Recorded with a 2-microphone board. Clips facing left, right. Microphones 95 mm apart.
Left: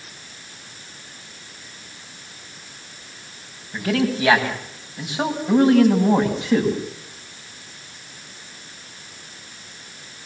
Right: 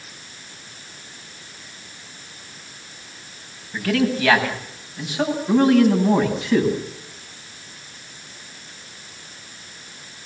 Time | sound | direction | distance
3.7 | a man speaking | 20° left (ahead or behind) | 9 m